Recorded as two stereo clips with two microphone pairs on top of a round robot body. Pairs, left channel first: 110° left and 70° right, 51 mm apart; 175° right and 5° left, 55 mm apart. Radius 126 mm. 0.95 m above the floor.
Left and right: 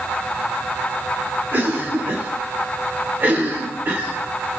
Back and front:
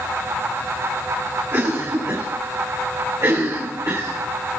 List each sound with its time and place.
1.5 s a cough: 20° right, 3.5 m